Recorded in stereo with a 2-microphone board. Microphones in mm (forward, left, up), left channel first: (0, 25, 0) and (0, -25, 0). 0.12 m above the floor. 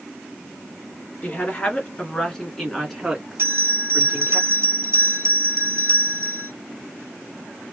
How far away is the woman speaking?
About 1.7 m.